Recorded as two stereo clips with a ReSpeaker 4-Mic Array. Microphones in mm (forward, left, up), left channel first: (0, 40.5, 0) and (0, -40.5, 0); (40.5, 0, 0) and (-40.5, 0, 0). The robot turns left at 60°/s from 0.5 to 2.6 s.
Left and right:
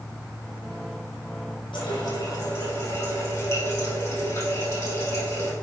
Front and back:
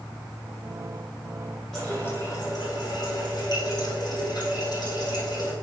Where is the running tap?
90° left, 4.5 m; by 5.5 s 35° left, 4.5 m.